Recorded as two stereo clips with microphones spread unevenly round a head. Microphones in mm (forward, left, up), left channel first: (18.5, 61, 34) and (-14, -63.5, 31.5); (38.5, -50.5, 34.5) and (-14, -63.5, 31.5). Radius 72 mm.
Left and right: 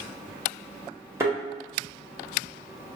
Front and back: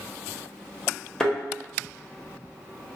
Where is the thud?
50° right, 0.7 m.